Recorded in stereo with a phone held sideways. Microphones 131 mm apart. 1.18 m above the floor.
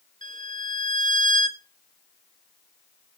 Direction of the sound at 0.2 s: 75° right (ahead or behind).